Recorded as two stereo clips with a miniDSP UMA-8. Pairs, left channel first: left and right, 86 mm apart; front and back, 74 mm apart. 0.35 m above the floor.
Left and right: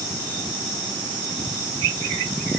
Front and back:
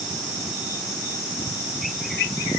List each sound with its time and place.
Only background noise.